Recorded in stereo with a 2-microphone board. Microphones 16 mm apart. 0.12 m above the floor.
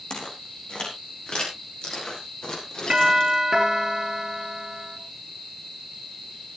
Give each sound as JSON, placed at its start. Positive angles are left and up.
{"t": 0.1, "sound": "footsteps", "side_deg": 55, "distance_m": 5.0}
{"t": 2.9, "sound": "a doorbell", "side_deg": -40, "distance_m": 2.5}